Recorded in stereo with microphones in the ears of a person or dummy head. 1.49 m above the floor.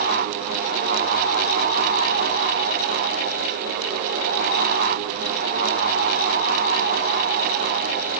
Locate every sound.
Only background noise.